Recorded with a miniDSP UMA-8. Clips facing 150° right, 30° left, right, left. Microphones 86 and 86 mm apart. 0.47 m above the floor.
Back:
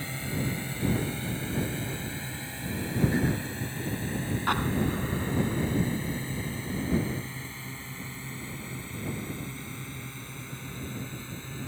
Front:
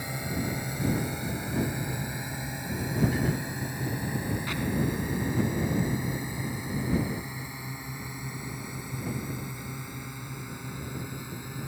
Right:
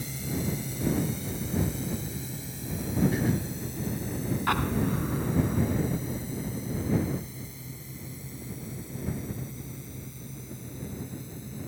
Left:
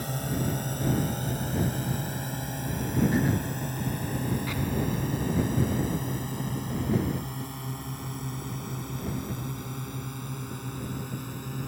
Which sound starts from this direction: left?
A drone, at 0.0 s.